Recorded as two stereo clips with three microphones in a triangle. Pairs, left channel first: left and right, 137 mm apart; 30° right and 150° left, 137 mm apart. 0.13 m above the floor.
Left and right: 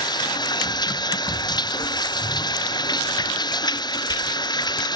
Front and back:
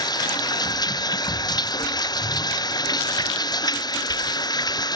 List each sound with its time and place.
0.0 s running water: 30° left